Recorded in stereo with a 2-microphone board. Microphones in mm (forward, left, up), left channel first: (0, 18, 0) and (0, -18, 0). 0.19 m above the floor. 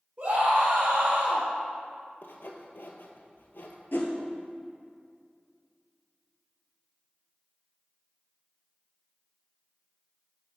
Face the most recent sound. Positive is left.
turn(degrees=65)  # may be behind; listen again after turning